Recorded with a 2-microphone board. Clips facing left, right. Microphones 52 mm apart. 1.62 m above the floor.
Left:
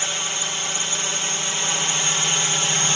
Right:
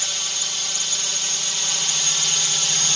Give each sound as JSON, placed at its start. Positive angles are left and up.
{"t": 0.0, "sound": "a drone", "side_deg": 30}